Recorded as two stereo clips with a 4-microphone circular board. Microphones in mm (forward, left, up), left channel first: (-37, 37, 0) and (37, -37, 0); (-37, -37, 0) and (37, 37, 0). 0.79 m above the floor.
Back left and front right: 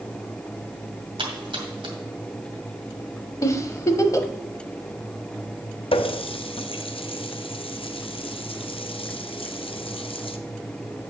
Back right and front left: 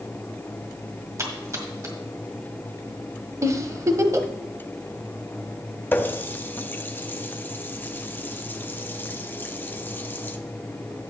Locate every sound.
1.2 s a splash: 15° right, 1.9 m
3.4 s a giggle: 90° left, 0.8 m
5.9 s a running tap: 155° left, 0.6 m